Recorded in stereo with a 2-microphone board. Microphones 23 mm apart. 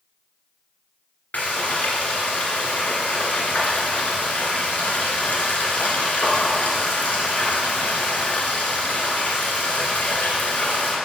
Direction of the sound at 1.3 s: 85° left.